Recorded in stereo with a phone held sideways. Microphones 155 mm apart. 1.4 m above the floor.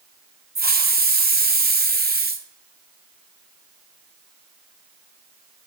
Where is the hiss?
80° right, 0.7 m.